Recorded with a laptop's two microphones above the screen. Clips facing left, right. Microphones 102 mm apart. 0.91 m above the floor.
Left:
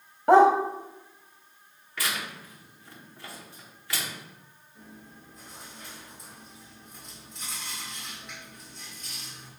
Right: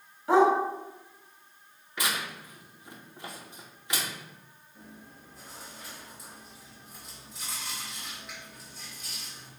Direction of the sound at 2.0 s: 20° right (ahead or behind).